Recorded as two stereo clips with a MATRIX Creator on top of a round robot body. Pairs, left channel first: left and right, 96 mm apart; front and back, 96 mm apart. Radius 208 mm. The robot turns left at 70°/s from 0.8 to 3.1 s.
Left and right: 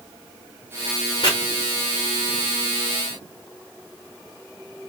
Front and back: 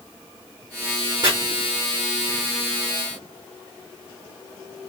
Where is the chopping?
135° left, 0.9 m; by 1.3 s 130° left, 0.9 m.